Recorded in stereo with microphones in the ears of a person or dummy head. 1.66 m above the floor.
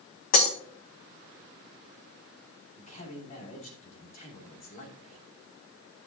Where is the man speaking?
40° left (ahead or behind), 2.5 m.